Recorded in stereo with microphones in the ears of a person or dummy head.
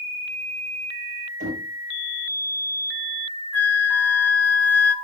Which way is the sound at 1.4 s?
45° right (ahead or behind).